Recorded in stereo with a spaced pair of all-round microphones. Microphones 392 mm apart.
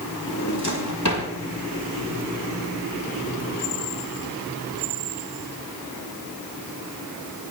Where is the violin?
I don't hear a violin.